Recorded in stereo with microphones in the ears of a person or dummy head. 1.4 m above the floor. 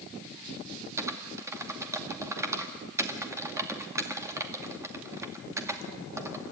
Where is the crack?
No crack in this recording.